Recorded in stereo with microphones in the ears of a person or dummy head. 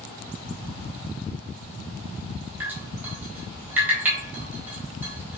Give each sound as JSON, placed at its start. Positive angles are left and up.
{"t": 2.6, "sound": "dripping", "side_deg": -15, "distance_m": 4.5}